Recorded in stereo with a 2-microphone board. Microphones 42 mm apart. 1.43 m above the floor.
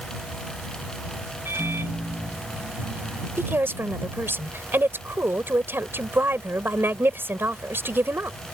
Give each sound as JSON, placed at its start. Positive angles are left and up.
{"t": 1.4, "sound": "a microwave", "side_deg": -70}
{"t": 3.4, "sound": "a woman speaking", "side_deg": -60}